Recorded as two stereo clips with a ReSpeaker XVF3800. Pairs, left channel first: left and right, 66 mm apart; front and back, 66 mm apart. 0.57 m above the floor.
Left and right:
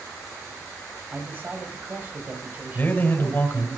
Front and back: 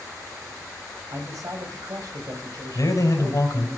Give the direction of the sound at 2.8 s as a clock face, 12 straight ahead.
11 o'clock.